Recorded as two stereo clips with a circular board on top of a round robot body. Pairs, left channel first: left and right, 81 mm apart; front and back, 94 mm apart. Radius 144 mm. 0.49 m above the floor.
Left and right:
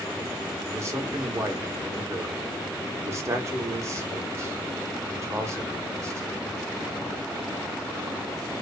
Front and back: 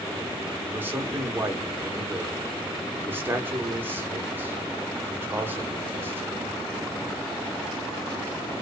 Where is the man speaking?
125° right, 1.2 m.